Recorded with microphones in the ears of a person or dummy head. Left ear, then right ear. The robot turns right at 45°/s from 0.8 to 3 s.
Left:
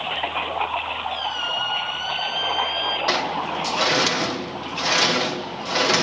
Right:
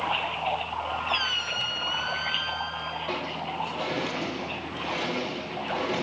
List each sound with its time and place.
1.1 s a squeak: 60° right, 3.5 m; by 3.0 s 25° left, 3.5 m
3.1 s a sliding door: 65° left (ahead or behind), 1.0 m